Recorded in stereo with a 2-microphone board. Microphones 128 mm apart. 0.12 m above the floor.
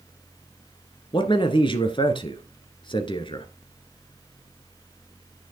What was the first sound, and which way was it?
A man speaking, 40° left (ahead or behind).